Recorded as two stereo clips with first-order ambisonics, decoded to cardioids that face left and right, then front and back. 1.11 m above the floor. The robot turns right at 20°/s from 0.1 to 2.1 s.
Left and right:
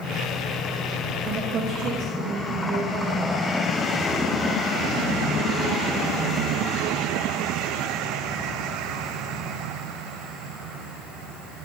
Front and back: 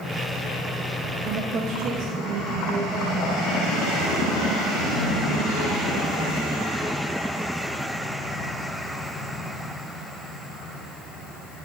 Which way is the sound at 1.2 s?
145° right.